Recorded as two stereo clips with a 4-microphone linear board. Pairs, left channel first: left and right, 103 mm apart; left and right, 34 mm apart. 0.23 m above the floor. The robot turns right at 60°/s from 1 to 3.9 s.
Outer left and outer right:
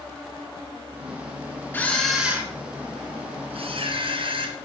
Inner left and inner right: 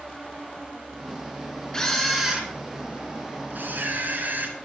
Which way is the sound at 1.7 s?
155° left.